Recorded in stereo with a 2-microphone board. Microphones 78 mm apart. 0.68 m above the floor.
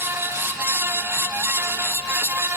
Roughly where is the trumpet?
No trumpet in this recording.